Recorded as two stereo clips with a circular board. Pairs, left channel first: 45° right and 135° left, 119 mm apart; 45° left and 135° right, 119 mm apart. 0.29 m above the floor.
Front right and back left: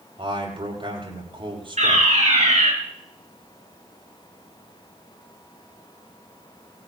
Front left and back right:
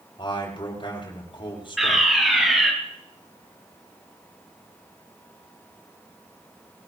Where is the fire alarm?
135° left, 7 m.